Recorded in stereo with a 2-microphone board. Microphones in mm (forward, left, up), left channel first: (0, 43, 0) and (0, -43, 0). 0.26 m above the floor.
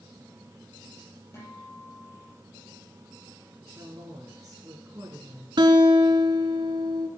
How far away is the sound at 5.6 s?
About 1.1 m.